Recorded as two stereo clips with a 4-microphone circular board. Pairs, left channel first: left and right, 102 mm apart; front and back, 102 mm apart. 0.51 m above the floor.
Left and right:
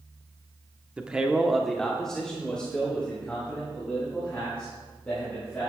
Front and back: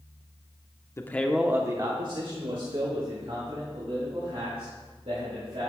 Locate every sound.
1.0 s a man speaking: 25° right, 0.9 m; by 5.7 s 165° left, 6 m